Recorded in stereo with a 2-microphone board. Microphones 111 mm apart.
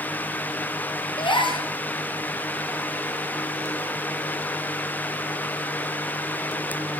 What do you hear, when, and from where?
1.2 s a gasp: 45° left (ahead or behind), 1.2 m